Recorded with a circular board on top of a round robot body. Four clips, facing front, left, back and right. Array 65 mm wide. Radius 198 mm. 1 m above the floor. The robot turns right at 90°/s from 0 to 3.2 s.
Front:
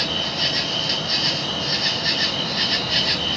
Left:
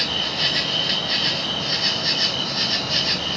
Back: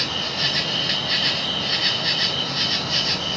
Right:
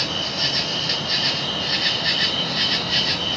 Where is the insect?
60° left, 1.5 m; by 3.4 s 10° right, 1.5 m.